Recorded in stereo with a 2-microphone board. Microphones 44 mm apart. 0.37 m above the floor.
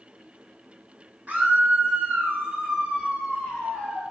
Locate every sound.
1.3 s a scream: 35° right (ahead or behind), 1.2 m; by 4.0 s 15° right (ahead or behind), 1.6 m